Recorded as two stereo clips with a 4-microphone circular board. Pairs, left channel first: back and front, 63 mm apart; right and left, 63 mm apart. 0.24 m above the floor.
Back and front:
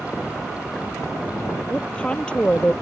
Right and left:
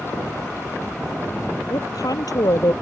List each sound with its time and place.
1.7 s a woman speaking: 105° right